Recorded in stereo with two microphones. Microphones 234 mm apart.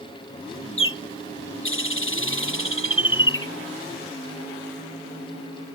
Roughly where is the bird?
Left.